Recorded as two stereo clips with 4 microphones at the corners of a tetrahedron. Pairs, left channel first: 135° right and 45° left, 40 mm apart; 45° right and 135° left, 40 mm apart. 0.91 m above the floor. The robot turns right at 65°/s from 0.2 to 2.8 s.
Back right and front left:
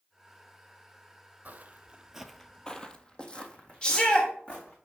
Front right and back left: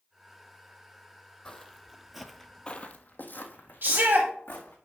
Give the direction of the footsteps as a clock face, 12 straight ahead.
11 o'clock.